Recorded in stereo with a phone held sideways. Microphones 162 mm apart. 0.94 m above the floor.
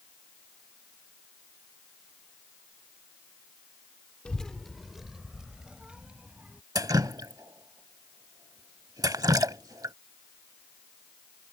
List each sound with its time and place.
4.2 s a child speaking: 5° left (ahead or behind); by 6.6 s 5° right (ahead or behind)
6.8 s dripping: 25° right (ahead or behind)